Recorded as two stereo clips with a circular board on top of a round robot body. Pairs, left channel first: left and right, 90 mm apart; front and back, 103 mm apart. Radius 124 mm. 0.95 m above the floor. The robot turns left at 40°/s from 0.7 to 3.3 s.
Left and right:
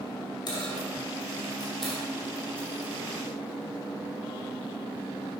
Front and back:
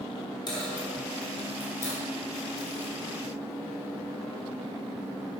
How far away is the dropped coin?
About 2.5 m.